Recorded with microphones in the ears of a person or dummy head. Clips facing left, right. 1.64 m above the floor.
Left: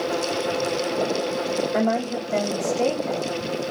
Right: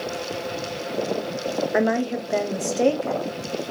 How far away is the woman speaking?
About 0.7 m.